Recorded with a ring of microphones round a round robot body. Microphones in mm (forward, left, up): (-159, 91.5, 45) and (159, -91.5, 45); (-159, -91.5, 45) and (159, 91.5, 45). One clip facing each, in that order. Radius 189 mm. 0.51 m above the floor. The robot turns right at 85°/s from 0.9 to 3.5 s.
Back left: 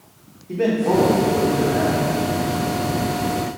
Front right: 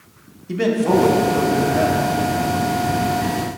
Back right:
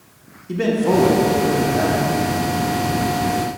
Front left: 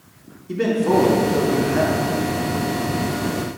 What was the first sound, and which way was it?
A man speaking, 60° right.